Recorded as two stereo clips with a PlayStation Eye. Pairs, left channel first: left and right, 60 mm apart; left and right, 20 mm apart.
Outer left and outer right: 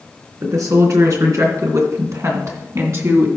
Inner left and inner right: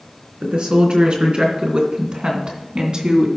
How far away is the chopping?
No chopping in this recording.